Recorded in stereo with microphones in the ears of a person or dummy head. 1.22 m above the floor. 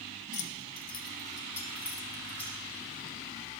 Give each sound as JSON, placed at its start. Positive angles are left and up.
{"t": 0.3, "sound": "keys jangling", "side_deg": 45, "distance_m": 0.7}